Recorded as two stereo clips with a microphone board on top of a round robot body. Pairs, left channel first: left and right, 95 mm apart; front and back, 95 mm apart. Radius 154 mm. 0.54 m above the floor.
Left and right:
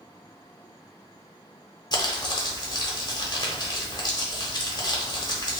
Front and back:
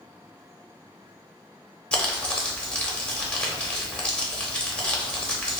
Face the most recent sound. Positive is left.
turn(degrees=75)